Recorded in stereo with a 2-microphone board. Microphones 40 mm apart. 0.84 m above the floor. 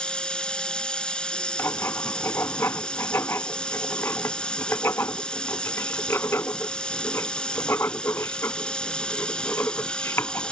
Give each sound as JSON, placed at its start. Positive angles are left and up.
{"t": 0.0, "sound": "running water", "side_deg": 20}
{"t": 1.6, "sound": "writing", "side_deg": 80}